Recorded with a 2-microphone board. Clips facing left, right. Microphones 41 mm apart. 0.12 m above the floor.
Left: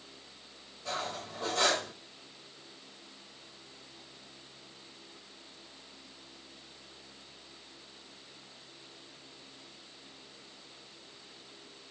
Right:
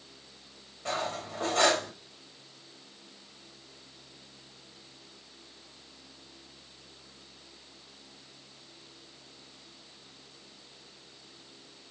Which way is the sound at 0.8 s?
55° right (ahead or behind).